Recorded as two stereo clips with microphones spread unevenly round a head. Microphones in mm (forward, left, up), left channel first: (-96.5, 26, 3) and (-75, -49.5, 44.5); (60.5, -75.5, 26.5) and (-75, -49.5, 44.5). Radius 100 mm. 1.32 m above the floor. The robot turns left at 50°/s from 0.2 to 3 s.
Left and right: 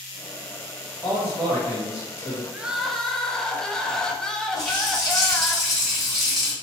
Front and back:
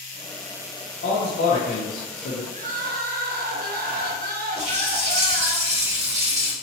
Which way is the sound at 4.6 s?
155° right.